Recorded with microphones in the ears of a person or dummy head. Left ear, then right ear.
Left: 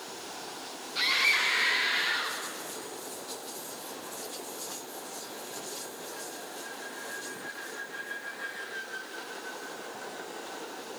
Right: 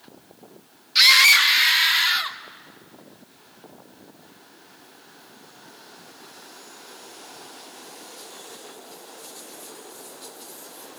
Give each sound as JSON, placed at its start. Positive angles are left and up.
{"t": 0.9, "sound": "a scream", "side_deg": -65, "distance_m": 1.8}